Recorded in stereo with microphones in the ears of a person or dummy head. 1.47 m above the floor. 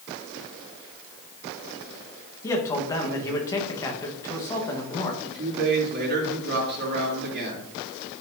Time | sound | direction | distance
2.4 | a man speaking | 20° left (ahead or behind) | 1.3 m
5.2 | a man speaking | 60° right (ahead or behind) | 3 m